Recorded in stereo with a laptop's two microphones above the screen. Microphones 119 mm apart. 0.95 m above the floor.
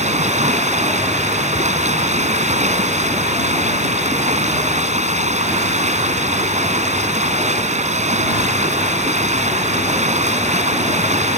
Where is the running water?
75° right (ahead or behind).